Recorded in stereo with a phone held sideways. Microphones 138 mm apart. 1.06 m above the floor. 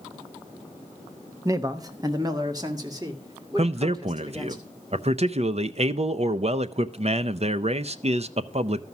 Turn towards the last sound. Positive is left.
turn(degrees=-50)  # may be behind; listen again after turning